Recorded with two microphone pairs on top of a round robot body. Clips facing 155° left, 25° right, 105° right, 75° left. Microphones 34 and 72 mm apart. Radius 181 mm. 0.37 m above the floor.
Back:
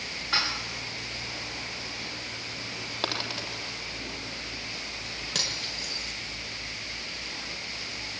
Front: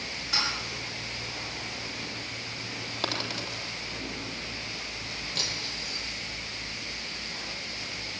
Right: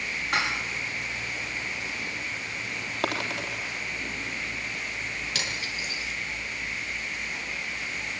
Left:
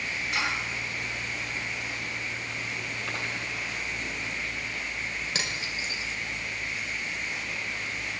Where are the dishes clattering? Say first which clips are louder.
Back 2 dB, right 3 dB; 150° right, 7 m.